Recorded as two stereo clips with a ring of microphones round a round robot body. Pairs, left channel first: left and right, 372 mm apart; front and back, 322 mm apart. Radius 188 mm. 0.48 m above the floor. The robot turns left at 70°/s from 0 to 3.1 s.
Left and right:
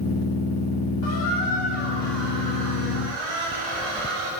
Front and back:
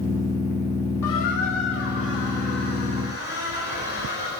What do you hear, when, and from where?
1.0 s a squeak: 50° left, 9.5 m; by 4.3 s 100° right, 9.5 m